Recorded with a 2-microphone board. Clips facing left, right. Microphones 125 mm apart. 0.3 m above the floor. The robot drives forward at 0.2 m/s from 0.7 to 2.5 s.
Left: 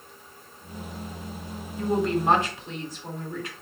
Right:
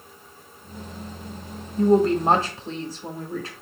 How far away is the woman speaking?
About 1.0 m.